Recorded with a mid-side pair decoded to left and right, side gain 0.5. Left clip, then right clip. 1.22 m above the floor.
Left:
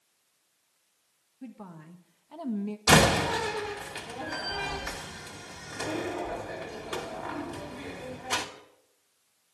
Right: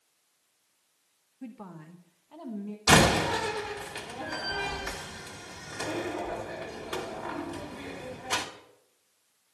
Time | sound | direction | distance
1.4 | a woman speaking | 15° right | 1.9 m
2.9 | a door slam | 10° left | 2 m